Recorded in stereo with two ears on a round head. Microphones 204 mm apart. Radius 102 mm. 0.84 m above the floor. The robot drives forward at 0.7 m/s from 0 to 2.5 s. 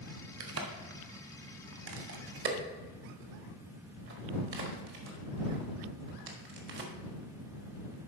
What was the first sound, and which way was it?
A crack, 65° right (ahead or behind).